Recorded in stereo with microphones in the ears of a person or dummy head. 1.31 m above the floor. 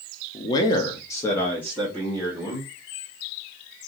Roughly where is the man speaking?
Left.